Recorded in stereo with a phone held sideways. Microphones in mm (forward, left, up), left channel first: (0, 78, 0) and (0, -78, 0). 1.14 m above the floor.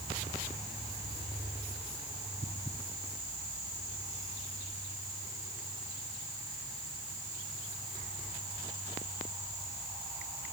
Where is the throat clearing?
I don't hear throat clearing.